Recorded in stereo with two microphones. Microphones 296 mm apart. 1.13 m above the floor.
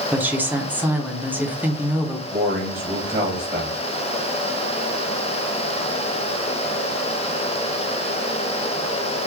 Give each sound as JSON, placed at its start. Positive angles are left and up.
{"t": 0.1, "sound": "a woman speaking", "side_deg": -5, "distance_m": 0.7}
{"t": 2.3, "sound": "a man speaking", "side_deg": -25, "distance_m": 1.2}